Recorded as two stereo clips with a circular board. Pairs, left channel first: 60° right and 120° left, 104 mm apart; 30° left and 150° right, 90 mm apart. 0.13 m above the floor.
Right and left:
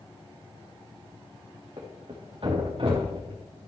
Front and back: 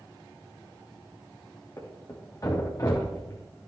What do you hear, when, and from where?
1.8 s a thud: 85° left, 3.5 m